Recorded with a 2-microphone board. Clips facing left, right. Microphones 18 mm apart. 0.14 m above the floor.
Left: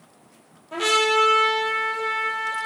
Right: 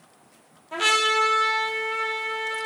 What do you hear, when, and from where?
0.7 s a trumpet: 10° right (ahead or behind), 0.6 m